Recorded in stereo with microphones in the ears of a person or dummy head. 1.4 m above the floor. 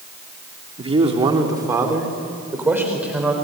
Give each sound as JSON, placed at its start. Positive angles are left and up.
{"t": 0.8, "sound": "a man speaking", "side_deg": -35, "distance_m": 2.5}